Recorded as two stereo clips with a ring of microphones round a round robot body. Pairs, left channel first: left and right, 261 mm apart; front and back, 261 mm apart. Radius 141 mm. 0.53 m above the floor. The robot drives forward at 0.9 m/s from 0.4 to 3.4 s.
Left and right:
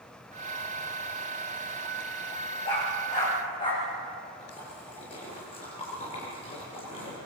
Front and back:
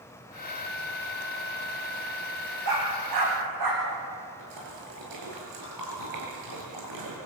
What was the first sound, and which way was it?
A dog barking, 165° left.